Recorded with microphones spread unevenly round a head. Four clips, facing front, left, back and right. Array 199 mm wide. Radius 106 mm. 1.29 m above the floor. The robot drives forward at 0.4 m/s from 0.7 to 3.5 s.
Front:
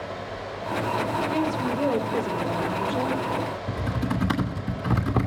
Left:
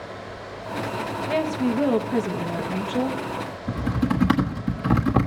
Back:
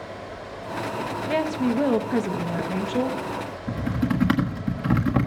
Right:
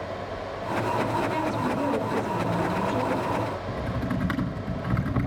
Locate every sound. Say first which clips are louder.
1.3 s a woman speaking: left 3 dB, back 2 dB; 140° left, 1.1 m; by 3.2 s 155° left, 1.8 m
3.7 s typing on a keyboard: left 5 dB, back 3 dB; 140° left, 1.5 m